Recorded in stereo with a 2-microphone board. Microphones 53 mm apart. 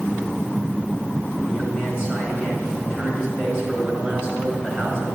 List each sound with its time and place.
1.5 s a man speaking: 25° right (ahead or behind), 4 m